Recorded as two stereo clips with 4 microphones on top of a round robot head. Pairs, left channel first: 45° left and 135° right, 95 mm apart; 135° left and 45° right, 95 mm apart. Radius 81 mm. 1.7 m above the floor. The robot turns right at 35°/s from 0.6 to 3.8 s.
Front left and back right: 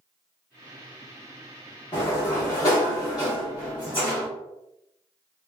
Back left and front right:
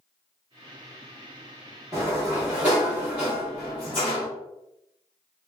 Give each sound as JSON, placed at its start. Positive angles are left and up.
{"t": 1.9, "sound": "a sliding door", "azimuth_deg": -15, "distance_m": 1.3}